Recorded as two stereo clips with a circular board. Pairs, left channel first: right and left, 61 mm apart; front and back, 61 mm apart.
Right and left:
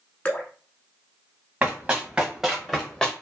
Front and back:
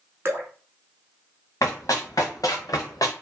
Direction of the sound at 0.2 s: 155° right.